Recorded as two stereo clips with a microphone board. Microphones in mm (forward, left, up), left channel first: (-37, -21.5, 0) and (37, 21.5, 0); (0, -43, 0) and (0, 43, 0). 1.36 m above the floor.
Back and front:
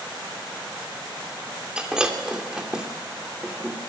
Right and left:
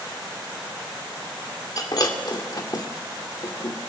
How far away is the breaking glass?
About 2.5 m.